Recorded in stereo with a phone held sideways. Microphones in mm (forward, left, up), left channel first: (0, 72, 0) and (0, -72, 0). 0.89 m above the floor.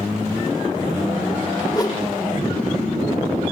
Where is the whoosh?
25° left (ahead or behind), 1.0 m.